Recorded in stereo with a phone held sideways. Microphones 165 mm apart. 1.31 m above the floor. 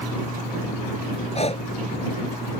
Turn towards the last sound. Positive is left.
turn(degrees=45)  # may be behind; listen again after turning